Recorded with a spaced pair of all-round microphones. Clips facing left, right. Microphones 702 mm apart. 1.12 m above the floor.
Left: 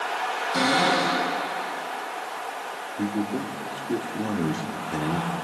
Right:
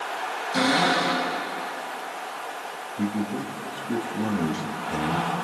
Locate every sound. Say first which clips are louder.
0.5 s a cupboard door: right 1 dB; 25° right (ahead or behind), 8 m
3.0 s a man speaking: left 1 dB; 35° right (ahead or behind), 2.0 m